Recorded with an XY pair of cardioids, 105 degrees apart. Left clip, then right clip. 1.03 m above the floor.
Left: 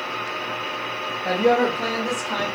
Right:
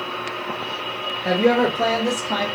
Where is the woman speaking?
30° right, 1.1 m; by 2.5 s 55° right, 1.9 m.